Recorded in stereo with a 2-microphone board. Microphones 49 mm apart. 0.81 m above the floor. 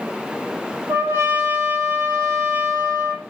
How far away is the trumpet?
About 5 m.